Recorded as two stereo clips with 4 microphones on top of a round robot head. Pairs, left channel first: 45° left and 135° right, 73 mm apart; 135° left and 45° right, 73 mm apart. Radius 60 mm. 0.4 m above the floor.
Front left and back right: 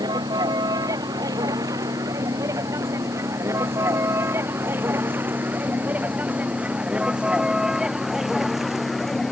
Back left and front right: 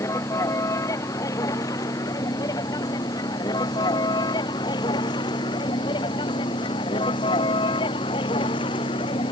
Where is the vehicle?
175° right; by 9.3 s 135° left.